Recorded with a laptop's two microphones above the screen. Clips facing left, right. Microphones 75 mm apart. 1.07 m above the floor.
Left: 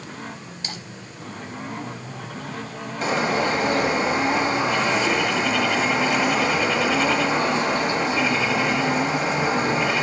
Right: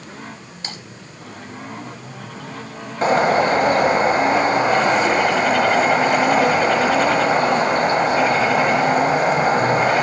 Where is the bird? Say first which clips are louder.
Right 7 dB; 45° right (ahead or behind), 1.2 m.